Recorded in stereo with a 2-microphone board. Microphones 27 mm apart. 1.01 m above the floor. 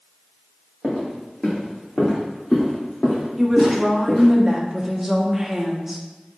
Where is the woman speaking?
10° right (ahead or behind), 0.8 m.